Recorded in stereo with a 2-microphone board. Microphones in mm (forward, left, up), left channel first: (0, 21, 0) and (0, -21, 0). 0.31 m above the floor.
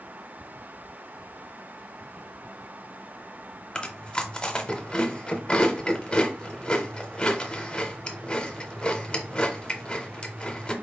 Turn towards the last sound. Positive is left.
turn(degrees=25)  # may be behind; listen again after turning